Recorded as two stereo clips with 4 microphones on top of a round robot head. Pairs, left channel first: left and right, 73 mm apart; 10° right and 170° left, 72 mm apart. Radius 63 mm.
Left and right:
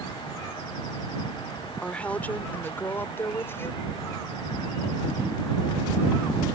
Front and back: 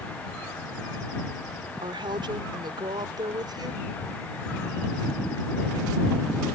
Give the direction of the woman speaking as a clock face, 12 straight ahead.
7 o'clock.